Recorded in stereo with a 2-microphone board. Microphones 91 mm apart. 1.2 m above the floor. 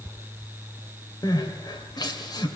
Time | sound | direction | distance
1.2 | crying | 45° left (ahead or behind) | 2.5 m